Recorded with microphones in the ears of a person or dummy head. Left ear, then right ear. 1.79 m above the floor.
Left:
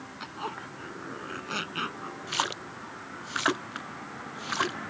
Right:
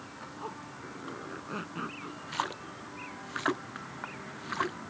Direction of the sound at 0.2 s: 40° left (ahead or behind).